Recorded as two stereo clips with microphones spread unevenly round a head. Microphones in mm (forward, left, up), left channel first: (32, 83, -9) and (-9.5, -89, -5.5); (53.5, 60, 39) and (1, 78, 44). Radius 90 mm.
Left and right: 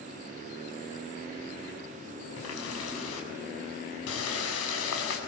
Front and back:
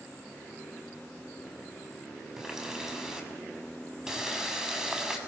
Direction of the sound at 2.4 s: 80° left.